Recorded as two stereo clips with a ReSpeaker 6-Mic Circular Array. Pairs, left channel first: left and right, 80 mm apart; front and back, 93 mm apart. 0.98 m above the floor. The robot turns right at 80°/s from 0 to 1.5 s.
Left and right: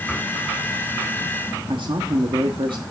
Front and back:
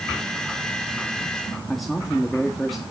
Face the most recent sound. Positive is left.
turn(degrees=-90)